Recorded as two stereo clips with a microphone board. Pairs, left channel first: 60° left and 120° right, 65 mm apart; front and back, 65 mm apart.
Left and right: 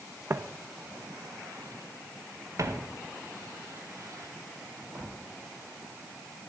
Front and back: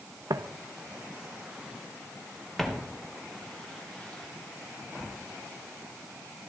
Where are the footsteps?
170° right, 0.5 m; by 5.1 s 75° right, 3 m.